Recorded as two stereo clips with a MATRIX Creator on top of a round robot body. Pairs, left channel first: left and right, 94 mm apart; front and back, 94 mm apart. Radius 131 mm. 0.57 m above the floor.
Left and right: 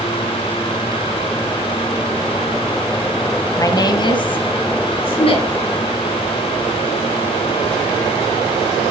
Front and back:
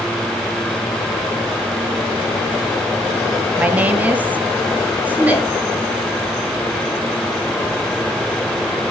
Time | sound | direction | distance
3.6 | a woman speaking | 115° left | 1.3 m